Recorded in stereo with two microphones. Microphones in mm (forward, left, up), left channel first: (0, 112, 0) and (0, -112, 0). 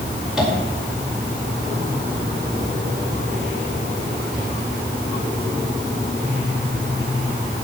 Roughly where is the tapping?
Centre.